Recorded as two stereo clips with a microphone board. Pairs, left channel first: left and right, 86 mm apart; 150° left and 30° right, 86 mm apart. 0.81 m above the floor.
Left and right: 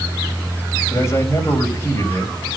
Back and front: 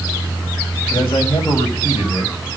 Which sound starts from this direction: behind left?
A man speaking, at 0.9 s.